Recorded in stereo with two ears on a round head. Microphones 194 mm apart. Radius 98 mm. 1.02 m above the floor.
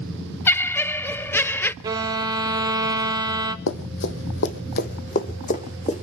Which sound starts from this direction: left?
Running footsteps, at 3.7 s.